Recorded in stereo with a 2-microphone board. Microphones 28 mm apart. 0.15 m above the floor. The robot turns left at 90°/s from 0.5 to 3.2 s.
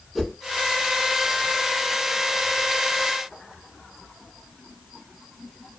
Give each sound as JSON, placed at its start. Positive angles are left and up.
{"t": 0.1, "sound": "a whoosh", "side_deg": 0, "distance_m": 0.8}